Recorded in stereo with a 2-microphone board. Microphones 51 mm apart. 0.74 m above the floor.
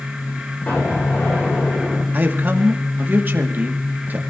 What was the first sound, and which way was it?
An explosion, 40° left (ahead or behind).